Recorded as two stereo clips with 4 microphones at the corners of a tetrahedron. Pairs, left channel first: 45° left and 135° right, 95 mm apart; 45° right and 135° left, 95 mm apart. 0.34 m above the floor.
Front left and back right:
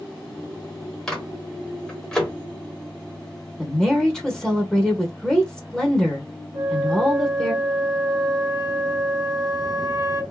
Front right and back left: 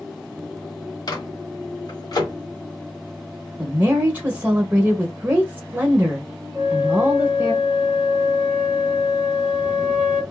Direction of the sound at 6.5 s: 150° right.